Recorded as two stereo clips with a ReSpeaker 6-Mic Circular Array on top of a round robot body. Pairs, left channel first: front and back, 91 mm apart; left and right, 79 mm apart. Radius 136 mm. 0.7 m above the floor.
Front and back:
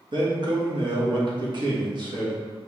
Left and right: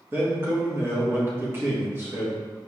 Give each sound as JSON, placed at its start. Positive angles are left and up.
{"t": 0.1, "sound": "a man speaking", "azimuth_deg": -150, "distance_m": 1.3}